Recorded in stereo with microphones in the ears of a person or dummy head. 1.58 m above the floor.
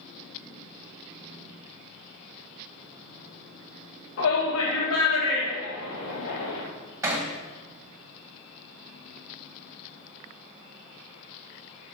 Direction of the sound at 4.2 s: 80° left.